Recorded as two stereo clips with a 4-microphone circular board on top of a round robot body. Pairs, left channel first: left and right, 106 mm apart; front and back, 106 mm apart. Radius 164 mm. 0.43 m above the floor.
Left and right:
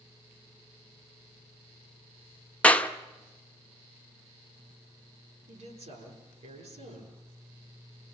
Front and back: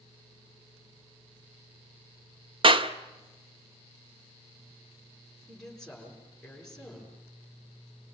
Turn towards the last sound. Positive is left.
turn(degrees=-85)